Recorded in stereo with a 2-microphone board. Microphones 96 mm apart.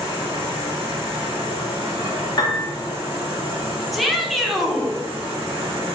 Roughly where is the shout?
Centre.